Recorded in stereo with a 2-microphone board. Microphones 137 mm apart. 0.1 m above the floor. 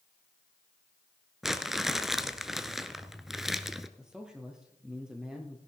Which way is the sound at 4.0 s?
5° right (ahead or behind).